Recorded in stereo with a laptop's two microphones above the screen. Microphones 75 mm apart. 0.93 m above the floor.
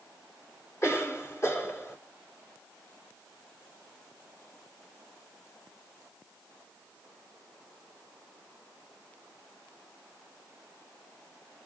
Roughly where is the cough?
Left.